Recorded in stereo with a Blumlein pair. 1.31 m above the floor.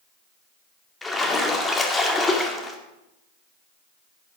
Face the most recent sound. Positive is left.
turn(degrees=10)